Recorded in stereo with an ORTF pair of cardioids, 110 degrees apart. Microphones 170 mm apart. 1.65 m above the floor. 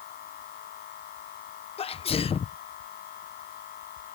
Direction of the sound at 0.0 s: 65° left.